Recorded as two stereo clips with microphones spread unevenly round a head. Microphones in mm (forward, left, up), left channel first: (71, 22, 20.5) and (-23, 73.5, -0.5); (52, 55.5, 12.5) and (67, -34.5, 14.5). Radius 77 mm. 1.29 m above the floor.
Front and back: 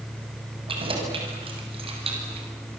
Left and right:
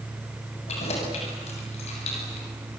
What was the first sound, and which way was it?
Keys jangling, 115° left.